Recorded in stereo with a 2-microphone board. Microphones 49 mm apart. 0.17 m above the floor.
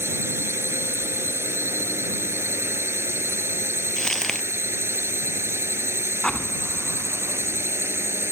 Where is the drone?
60° right (ahead or behind).